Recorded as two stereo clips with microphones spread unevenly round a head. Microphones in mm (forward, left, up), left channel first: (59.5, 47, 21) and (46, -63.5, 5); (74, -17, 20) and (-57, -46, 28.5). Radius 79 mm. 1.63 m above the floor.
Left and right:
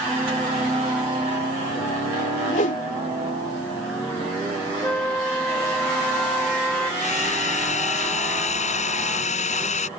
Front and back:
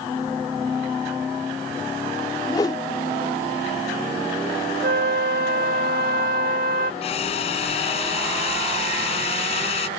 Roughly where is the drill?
Left.